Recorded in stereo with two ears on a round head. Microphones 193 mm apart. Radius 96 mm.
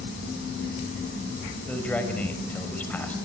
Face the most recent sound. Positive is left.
turn(degrees=5)  # may be behind; listen again after turning